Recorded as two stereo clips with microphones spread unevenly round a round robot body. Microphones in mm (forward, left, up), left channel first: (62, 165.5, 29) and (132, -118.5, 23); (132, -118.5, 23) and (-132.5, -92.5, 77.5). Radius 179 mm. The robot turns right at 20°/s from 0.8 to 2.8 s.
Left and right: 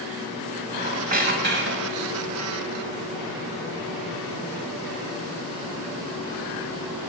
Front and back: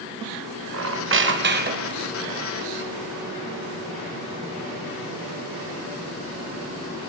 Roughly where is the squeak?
Behind right.